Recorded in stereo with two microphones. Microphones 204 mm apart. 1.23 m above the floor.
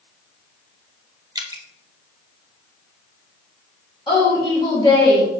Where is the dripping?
20° right (ahead or behind), 0.7 m.